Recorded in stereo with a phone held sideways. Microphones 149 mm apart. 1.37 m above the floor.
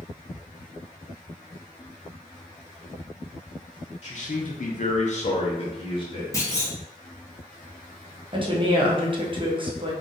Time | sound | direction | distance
4.0 | a man speaking | 50° left (ahead or behind) | 0.6 m
6.3 | a clunk | 20° left (ahead or behind) | 0.9 m
8.3 | a woman speaking | 35° right (ahead or behind) | 0.7 m